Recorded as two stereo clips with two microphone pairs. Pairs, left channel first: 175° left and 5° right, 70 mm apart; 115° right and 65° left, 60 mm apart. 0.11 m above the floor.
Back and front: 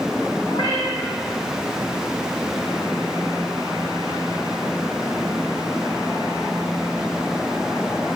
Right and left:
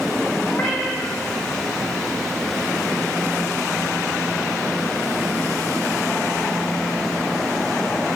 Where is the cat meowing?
170° right, 3.5 m.